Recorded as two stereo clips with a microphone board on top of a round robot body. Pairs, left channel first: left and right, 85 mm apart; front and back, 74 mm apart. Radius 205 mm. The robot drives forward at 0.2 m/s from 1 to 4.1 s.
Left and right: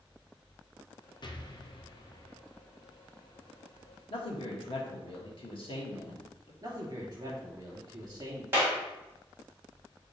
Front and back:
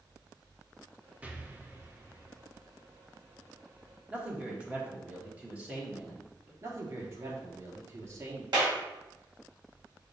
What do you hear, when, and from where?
1.2 s an explosion: 110° left, 0.8 m; by 2.4 s 130° left, 0.9 m
4.1 s a man speaking: 105° left, 1.4 m
6.6 s a man speaking: 135° right, 1.8 m
8.5 s a clap: 155° right, 1.7 m